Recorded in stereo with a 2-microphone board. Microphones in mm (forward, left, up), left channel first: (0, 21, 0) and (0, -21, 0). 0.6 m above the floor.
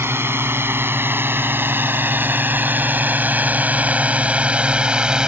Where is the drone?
65° right (ahead or behind); by 5.3 s 20° right (ahead or behind).